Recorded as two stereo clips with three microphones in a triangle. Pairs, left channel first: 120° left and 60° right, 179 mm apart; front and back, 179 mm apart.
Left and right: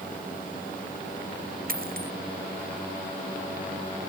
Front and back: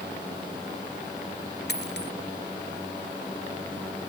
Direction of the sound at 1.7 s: 25° right.